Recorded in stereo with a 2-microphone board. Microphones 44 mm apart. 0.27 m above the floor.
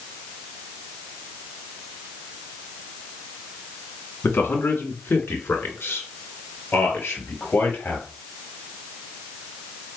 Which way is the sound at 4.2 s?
55° left (ahead or behind).